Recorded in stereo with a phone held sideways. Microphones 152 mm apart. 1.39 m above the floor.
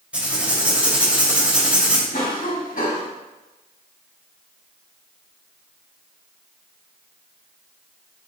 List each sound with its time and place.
0.1 s writing: 10° right (ahead or behind), 2.5 m
2.1 s a cough: 65° left (ahead or behind), 3 m